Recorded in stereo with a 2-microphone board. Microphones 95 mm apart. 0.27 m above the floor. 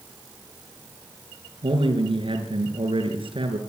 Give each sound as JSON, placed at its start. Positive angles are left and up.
{"t": 1.6, "sound": "a man speaking", "side_deg": -70, "distance_m": 4.0}